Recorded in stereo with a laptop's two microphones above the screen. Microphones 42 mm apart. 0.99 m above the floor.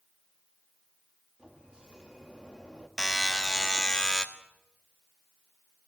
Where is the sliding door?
20° right (ahead or behind), 1.7 m.